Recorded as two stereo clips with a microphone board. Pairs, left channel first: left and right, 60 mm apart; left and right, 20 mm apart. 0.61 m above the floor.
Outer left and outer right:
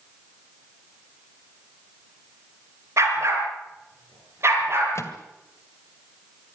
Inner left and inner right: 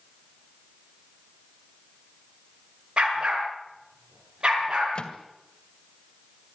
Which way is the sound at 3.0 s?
55° right (ahead or behind).